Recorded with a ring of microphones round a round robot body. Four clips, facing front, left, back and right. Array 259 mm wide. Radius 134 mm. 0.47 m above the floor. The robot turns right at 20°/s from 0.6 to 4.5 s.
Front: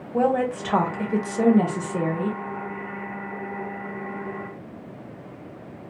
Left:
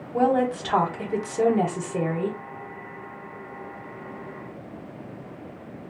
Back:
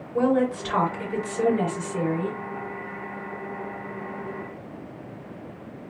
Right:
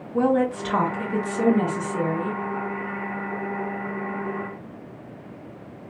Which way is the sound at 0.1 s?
30° left.